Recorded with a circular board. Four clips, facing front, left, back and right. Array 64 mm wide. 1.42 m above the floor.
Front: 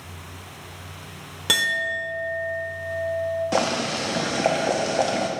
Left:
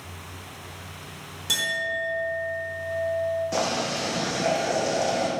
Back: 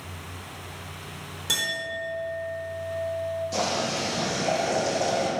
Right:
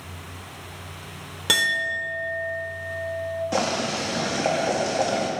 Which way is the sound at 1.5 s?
45° right.